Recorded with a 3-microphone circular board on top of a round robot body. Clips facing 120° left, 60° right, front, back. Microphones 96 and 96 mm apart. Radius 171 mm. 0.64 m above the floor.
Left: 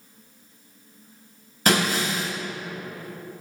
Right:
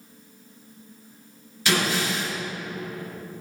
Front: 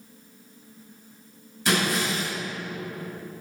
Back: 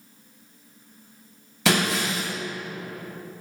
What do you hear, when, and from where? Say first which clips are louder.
1.6 s breaking glass: left 2 dB, back 1 dB; 170° left, 3.5 m